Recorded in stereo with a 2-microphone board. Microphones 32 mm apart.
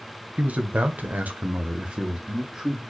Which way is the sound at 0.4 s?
45° right (ahead or behind).